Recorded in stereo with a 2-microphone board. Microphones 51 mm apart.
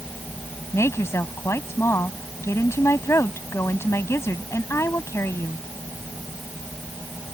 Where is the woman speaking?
65° left (ahead or behind).